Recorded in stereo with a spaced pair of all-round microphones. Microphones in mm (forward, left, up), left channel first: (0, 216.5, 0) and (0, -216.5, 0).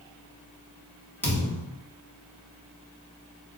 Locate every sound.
1.2 s a thud: 5° left (ahead or behind), 1.0 m